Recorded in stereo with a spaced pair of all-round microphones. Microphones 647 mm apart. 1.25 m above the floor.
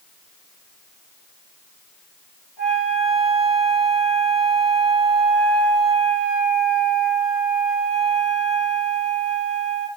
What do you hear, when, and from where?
2.6 s a flute: 40° left (ahead or behind), 7.5 m